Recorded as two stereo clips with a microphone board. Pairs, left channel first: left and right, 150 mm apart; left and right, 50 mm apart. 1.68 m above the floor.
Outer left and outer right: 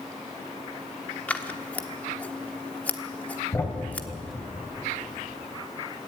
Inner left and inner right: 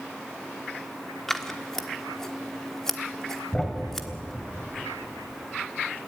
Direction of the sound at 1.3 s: 10° left (ahead or behind).